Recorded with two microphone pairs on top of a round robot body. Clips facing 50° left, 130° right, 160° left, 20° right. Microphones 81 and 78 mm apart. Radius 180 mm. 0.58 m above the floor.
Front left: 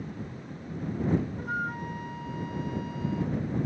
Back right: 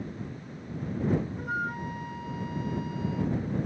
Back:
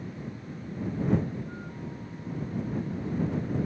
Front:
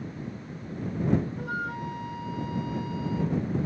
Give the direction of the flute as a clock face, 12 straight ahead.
1 o'clock.